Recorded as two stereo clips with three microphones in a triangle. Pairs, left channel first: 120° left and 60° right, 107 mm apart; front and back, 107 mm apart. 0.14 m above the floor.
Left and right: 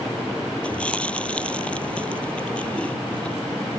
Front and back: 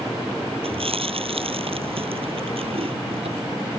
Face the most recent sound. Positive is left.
turn(degrees=-160)